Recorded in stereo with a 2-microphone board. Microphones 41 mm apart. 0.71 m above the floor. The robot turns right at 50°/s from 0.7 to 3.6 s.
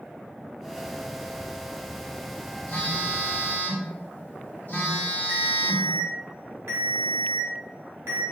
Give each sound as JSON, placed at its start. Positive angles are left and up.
{"t": 2.7, "sound": "a phone buzzing", "azimuth_deg": 65, "distance_m": 1.5}
{"t": 5.3, "sound": "a ringtone", "side_deg": -90, "distance_m": 1.4}